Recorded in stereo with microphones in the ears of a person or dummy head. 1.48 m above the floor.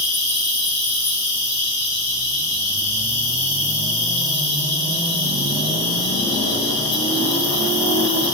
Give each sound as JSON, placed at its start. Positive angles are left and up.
{"t": 0.0, "sound": "an insect", "side_deg": -15, "distance_m": 2.0}